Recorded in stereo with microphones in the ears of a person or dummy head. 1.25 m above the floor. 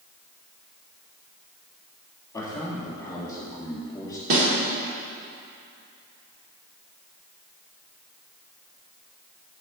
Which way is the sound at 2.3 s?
15° left (ahead or behind).